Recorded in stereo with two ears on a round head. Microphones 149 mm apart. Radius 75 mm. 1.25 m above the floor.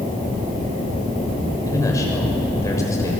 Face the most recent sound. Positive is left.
turn(degrees=20)  # may be behind; listen again after turning